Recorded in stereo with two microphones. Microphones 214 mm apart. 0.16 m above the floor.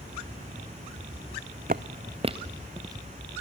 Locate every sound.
1.7 s footsteps: 45° right (ahead or behind), 0.6 m; by 3.0 s 15° right (ahead or behind), 1.3 m